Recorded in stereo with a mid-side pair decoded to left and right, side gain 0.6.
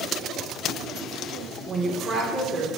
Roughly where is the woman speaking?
Ahead right.